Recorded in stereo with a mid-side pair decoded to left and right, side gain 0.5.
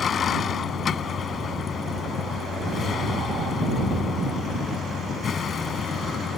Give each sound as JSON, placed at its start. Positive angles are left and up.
{"t": 0.0, "sound": "a vehicle", "azimuth_deg": 50}